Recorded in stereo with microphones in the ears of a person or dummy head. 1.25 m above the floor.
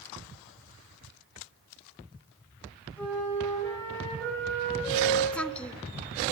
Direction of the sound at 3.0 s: 10° left (ahead or behind).